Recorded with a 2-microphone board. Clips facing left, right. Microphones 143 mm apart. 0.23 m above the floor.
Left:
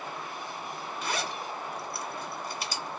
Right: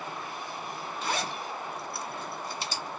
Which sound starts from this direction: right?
A zipper, at 1.0 s.